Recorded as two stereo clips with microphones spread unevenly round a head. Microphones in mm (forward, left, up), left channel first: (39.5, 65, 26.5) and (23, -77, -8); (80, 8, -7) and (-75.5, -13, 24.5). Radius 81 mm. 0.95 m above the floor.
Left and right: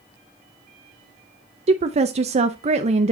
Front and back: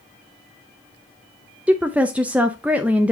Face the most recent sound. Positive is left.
turn(degrees=-85)